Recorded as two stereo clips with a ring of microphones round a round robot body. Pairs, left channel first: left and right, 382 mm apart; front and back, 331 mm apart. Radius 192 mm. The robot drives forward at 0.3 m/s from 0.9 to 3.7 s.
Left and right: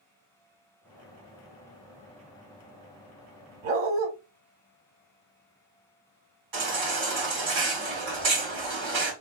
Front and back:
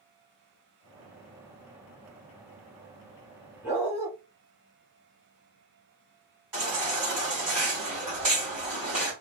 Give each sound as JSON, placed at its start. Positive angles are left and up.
{"t": 3.6, "sound": "a dog barking", "azimuth_deg": -95, "distance_m": 1.4}
{"t": 6.5, "sound": "a baby crying", "azimuth_deg": -135, "distance_m": 3.0}